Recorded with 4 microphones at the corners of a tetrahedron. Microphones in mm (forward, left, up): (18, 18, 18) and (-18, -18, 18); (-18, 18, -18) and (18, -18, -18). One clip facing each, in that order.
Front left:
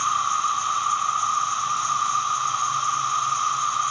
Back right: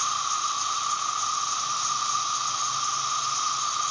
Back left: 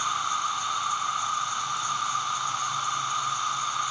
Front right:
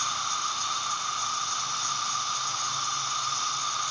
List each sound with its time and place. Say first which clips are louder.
0.0 s an insect: front left 6 dB, back left 3 dB; 80° left, 0.9 m